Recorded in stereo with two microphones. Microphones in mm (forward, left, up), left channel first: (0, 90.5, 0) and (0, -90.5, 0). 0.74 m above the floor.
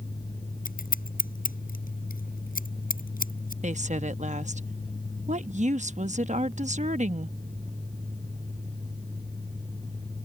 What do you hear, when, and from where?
0.7 s scissors: 50° left (ahead or behind)
3.6 s a woman speaking: 40° right (ahead or behind)